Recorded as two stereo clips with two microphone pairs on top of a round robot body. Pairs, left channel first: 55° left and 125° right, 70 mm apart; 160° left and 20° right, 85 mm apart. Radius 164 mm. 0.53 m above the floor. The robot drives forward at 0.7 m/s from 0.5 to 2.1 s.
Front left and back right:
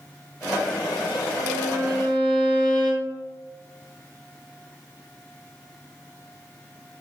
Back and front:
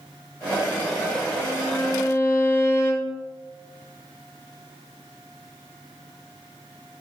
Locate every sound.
1.4 s a violin: 130° right, 1.9 m; by 3.2 s 140° right, 2.5 m